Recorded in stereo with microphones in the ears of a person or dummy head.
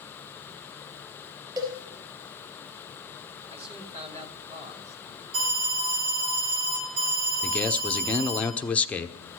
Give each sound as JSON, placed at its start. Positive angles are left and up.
{"t": 1.6, "sound": "a cowbell", "side_deg": -20, "distance_m": 4.5}
{"t": 3.5, "sound": "a man speaking", "side_deg": -30, "distance_m": 1.8}
{"t": 5.3, "sound": "an alarm", "side_deg": -85, "distance_m": 7.0}
{"t": 7.4, "sound": "a man speaking", "side_deg": 5, "distance_m": 0.6}